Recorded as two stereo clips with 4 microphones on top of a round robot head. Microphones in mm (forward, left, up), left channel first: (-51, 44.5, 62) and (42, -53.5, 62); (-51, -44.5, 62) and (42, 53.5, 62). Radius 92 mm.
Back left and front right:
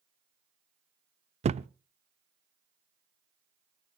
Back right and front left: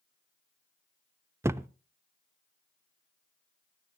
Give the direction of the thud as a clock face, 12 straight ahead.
1 o'clock.